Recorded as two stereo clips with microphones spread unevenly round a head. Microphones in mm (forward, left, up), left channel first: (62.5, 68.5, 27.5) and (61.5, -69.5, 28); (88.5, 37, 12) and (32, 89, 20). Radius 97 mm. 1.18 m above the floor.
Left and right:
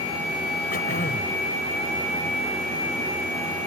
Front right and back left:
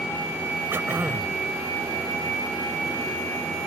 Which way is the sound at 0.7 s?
80° left.